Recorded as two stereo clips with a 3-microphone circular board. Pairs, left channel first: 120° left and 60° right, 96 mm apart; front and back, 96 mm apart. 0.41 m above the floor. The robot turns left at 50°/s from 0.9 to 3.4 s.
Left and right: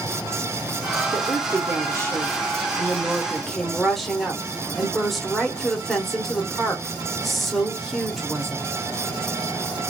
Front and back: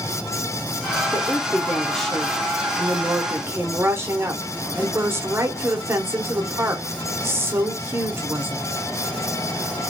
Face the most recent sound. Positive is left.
turn(degrees=-150)